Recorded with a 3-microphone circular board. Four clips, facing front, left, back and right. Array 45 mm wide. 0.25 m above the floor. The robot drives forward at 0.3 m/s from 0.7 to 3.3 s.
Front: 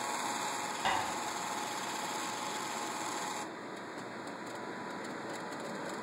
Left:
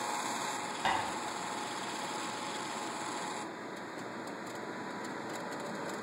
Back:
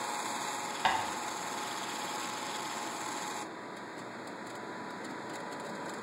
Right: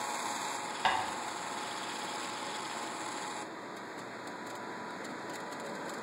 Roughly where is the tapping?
Behind right.